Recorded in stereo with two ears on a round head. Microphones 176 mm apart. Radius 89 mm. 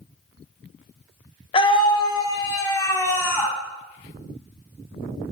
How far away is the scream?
About 1.6 m.